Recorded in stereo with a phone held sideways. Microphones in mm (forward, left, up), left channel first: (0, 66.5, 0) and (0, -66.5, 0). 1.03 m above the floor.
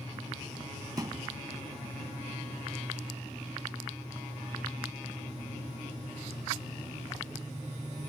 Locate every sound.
1.0 s a thud: 30° right (ahead or behind)